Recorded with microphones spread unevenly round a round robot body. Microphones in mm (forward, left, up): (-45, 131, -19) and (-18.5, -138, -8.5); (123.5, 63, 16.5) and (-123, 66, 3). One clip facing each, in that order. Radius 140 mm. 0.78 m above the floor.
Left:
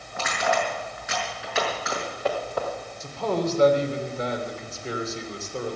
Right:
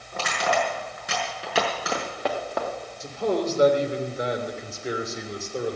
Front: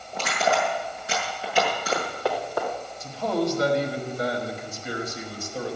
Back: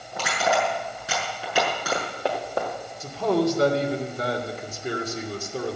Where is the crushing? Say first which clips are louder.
Even, even; 140° right, 6.5 m.